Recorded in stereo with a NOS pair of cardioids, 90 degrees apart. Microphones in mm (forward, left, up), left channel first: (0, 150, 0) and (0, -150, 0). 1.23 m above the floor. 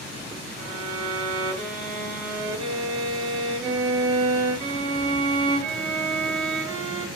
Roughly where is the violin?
Ahead right.